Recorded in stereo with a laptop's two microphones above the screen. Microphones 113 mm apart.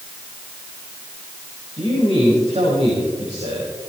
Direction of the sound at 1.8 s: 80° right.